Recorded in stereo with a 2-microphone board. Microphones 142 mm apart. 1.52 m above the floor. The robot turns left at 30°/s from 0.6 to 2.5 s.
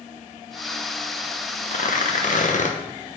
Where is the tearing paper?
70° left (ahead or behind), 0.9 m; by 2.8 s 65° left (ahead or behind), 0.9 m.